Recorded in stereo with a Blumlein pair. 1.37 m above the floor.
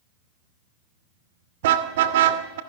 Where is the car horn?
55° right, 2.5 m.